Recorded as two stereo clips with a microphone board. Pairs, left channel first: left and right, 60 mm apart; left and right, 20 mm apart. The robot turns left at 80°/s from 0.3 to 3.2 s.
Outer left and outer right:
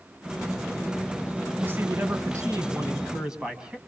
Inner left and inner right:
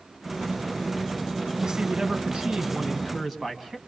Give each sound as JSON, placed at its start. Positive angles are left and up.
{"t": 1.6, "sound": "a man speaking", "azimuth_deg": -35, "distance_m": 3.0}